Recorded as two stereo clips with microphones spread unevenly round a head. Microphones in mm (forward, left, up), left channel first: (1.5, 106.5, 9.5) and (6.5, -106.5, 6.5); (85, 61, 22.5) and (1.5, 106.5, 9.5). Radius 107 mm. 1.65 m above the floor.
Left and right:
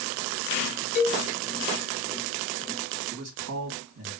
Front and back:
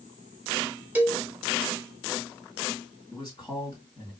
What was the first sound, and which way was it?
A cowbell, 75° left.